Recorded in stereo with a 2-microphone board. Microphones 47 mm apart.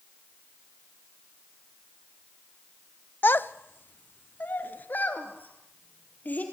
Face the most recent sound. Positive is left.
turn(degrees=40)  # may be behind; listen again after turning